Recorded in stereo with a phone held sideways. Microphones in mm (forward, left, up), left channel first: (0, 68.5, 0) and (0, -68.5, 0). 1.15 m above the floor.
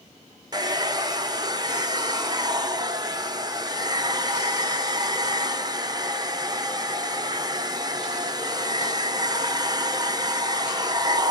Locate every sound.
0.5 s a hair dryer: 30° right (ahead or behind), 0.5 m